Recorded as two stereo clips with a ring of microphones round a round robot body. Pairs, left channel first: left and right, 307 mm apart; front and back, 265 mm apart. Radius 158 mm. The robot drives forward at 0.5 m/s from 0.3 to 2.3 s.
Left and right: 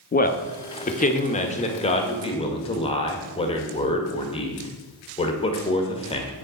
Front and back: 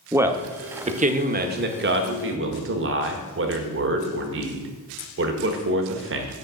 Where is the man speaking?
110° left, 1.0 m; by 6.3 s 160° left, 1.5 m.